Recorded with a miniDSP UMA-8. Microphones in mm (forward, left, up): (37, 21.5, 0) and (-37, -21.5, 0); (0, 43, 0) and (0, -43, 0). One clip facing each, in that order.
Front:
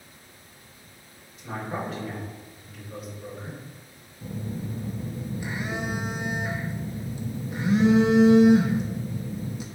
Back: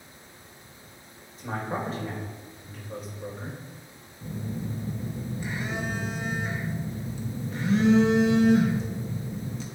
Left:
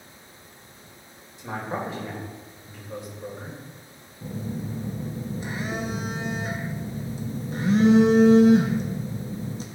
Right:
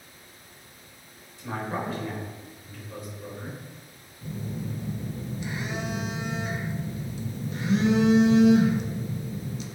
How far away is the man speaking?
About 3.5 m.